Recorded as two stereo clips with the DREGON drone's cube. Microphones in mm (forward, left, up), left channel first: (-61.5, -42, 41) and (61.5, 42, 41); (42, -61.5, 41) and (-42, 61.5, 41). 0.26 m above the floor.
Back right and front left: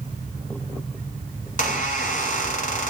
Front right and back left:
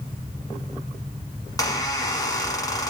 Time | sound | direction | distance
1.4 | a squeak | 120° right | 1.2 m